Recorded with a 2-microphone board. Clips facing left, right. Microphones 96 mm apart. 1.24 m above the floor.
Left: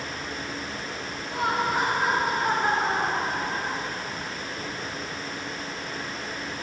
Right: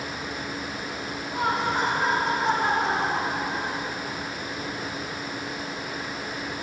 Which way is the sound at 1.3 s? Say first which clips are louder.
Even; centre (ahead or behind).